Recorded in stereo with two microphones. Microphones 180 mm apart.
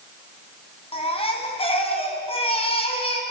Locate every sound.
0.9 s a baby crying: 30° left (ahead or behind), 4.5 m